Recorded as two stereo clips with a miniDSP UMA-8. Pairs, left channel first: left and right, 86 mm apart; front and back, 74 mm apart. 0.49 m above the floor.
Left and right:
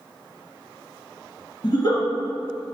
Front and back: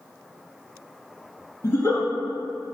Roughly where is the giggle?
Ahead left.